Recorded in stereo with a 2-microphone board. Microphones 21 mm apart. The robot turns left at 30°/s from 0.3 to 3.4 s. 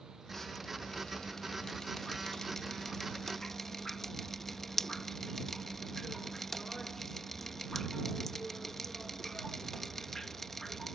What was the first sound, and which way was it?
Dripping, 15° left (ahead or behind).